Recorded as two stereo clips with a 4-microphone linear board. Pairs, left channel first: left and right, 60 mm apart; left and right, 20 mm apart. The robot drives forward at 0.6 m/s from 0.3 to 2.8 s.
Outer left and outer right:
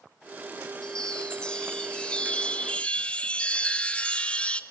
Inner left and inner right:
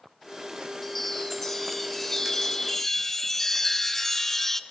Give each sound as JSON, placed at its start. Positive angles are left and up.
{"t": 0.8, "sound": "a chime", "side_deg": 15, "distance_m": 1.5}